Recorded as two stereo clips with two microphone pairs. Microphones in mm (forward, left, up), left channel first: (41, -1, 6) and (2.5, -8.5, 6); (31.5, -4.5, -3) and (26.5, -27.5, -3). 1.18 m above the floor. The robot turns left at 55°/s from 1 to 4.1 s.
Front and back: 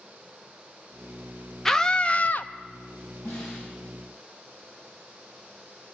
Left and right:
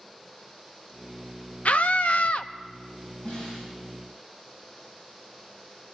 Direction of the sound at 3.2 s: 25° left.